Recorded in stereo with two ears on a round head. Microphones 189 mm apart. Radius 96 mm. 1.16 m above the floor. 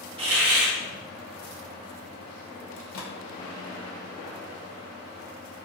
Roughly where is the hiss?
Right.